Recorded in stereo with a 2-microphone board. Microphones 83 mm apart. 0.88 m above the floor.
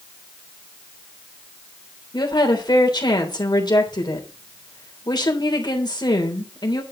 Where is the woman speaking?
60° left (ahead or behind), 3 m.